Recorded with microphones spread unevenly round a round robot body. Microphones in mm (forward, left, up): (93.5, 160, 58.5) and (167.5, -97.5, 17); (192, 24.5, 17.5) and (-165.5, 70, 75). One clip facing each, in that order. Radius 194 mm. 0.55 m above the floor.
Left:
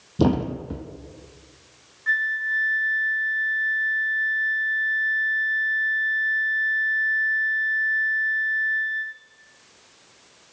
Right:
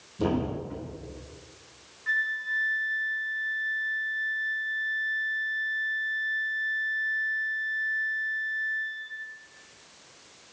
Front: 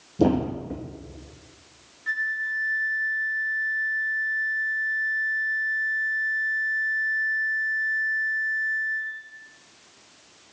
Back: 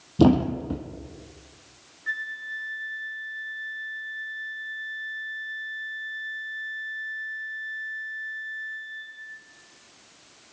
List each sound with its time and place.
0.2 s a thud: 120° left, 1.1 m
2.1 s a flute: 60° left, 1.4 m